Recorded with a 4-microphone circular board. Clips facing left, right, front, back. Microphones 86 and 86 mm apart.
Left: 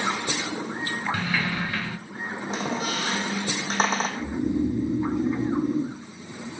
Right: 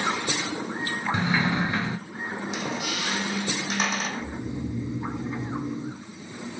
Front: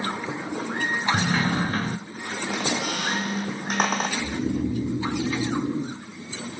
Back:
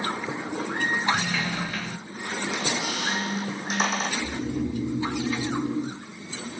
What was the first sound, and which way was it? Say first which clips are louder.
A sliding door: right 3 dB, front 5 dB; 30° right.